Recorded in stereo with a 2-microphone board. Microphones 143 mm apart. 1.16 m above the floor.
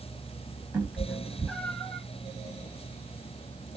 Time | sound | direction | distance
0.7 | a cat meowing | 15° right (ahead or behind) | 1.1 m